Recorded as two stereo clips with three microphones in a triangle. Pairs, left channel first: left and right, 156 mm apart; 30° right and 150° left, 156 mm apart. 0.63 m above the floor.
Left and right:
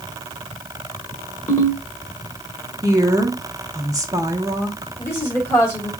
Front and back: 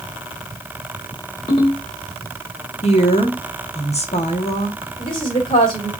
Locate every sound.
1.5 s a ringtone: 20° left, 1.3 m
2.8 s a woman speaking: 35° right, 1.0 m
5.0 s a woman speaking: 20° left, 1.9 m